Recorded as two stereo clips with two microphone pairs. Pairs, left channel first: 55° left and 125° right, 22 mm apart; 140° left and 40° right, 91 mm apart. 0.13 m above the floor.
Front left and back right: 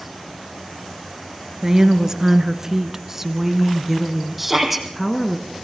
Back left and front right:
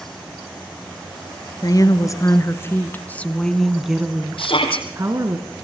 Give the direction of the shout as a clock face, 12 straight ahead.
7 o'clock.